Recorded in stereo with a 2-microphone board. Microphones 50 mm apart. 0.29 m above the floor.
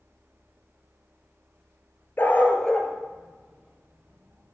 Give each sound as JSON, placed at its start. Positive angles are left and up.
{"t": 2.2, "sound": "a dog barking", "side_deg": 40, "distance_m": 1.2}